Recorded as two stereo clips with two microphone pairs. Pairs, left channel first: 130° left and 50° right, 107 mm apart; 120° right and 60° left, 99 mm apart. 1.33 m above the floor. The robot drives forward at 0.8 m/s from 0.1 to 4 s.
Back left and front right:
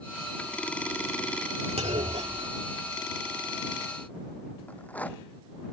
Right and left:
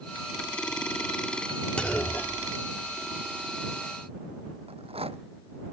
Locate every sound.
1.8 s a clunk: 45° right; by 3.2 s 80° right
4.7 s a rattle: 55° left